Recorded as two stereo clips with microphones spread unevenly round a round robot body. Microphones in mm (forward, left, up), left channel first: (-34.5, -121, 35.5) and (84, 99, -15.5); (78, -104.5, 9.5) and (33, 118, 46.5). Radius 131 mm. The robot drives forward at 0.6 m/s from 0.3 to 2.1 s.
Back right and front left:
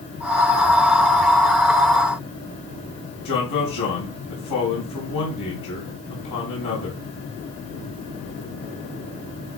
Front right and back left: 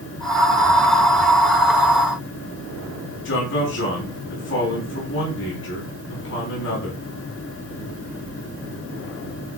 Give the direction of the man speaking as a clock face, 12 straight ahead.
4 o'clock.